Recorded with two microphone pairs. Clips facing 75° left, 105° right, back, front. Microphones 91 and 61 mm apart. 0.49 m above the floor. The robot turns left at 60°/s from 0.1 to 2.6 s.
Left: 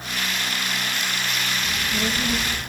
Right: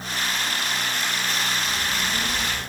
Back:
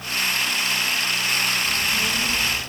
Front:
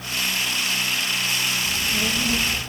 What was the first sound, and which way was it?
A child speaking, 90° left.